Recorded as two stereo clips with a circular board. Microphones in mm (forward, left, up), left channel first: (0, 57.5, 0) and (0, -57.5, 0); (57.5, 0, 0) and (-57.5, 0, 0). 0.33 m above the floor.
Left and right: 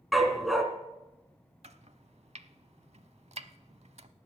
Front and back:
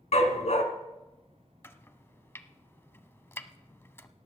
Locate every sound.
0.1 s a dog barking: straight ahead, 1.6 m
1.6 s chopping: 70° right, 0.6 m